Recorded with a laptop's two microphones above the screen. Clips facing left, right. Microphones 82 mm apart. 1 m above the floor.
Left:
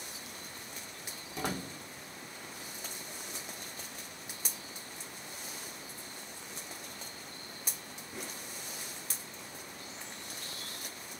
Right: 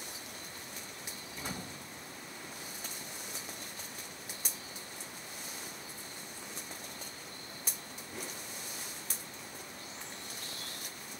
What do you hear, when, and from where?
1.4 s a door slam: 75° left (ahead or behind), 2 m